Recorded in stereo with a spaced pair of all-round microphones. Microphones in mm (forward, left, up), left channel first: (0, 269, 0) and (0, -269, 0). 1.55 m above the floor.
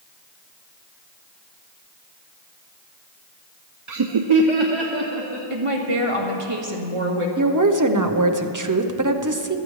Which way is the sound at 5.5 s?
65° right (ahead or behind).